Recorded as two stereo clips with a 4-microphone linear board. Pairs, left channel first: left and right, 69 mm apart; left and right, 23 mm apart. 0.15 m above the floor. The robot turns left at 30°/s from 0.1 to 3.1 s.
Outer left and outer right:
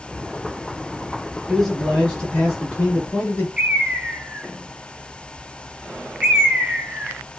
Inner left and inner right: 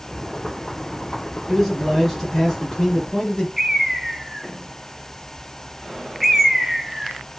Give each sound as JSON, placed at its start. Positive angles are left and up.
{"t": 1.5, "sound": "a man speaking", "side_deg": 0, "distance_m": 1.1}
{"t": 3.6, "sound": "a bird", "side_deg": -15, "distance_m": 0.8}